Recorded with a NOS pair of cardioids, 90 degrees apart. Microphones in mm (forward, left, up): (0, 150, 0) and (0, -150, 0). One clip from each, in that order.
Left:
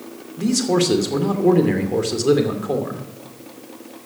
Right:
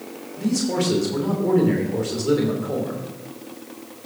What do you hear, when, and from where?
0.4 s a man speaking: 45° left, 2.5 m